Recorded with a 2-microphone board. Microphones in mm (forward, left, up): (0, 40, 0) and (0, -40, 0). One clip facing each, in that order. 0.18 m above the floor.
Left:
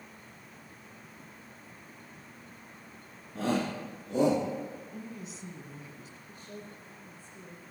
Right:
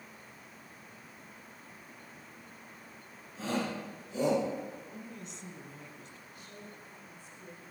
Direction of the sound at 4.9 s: 5° left (ahead or behind).